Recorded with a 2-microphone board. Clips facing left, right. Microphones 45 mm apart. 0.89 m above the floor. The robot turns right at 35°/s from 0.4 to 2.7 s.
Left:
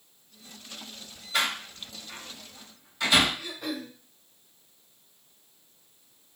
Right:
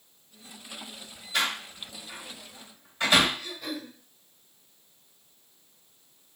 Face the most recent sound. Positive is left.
turn(degrees=30)  # may be behind; listen again after turning